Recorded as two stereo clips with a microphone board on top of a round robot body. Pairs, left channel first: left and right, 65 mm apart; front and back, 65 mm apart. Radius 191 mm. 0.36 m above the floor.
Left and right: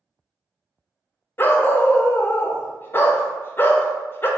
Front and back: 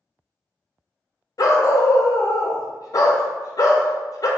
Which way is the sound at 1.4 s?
30° left.